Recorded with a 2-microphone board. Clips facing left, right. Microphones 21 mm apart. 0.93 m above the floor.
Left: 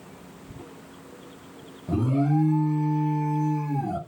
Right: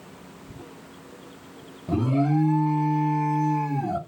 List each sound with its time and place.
1.9 s an alarm: 20° right (ahead or behind), 0.9 m